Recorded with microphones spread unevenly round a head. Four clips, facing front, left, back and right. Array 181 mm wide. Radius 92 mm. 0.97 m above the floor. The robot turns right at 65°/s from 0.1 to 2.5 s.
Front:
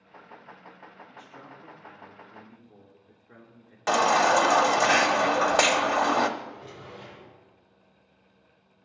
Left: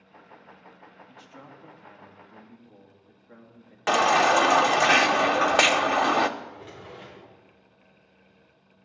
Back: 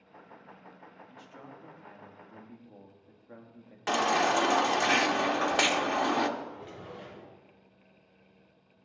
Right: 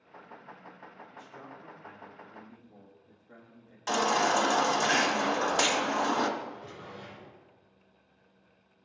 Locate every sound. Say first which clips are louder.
1.1 s a man speaking: left 1 dB, front 2 dB; 75° left, 1.9 m; by 3.8 s 170° left, 1.9 m
3.9 s a baby crying: left 6 dB, front 5 dB; 55° left, 0.7 m
6.4 s a drawer: even, front 1 dB; 130° left, 5.5 m